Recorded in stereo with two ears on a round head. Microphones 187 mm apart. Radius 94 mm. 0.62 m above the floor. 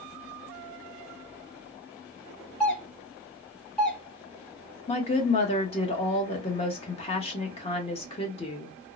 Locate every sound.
2.6 s a doorbell: 5° left (ahead or behind), 1.1 m
4.9 s a woman speaking: 30° left (ahead or behind), 0.9 m